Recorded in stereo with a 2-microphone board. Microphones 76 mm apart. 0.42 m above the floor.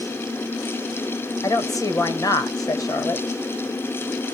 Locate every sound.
1.4 s a woman speaking: 60° left (ahead or behind), 1.6 m